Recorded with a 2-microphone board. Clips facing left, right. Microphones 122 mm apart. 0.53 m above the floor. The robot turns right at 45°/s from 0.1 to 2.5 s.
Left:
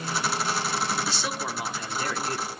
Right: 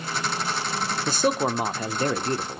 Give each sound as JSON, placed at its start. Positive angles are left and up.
{"t": 1.1, "sound": "a man speaking", "azimuth_deg": -105, "distance_m": 1.0}